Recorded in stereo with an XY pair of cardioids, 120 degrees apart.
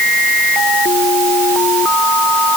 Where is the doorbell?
I don't hear a doorbell.